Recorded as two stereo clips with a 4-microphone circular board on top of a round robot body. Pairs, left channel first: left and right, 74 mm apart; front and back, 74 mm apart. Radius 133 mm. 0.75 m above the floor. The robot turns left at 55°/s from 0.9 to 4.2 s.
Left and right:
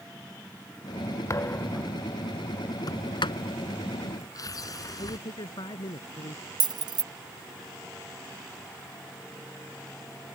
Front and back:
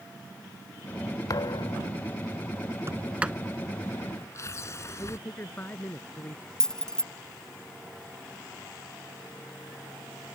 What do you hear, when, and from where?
1.3 s a thud: 40° left; by 1.9 s 5° left
2.9 s a sliding door: 125° left; by 5.2 s 50° left
5.0 s a man speaking: 65° left
6.6 s keys jangling: 80° right